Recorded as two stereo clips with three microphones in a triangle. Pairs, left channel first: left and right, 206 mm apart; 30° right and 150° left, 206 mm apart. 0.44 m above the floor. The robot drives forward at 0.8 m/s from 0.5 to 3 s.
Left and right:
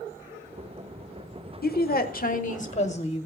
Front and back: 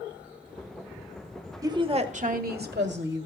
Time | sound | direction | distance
1.6 | a woman speaking | 85° left | 1.1 m